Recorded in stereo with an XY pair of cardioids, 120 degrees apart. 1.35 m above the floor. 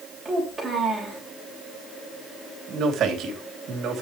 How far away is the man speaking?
About 3 m.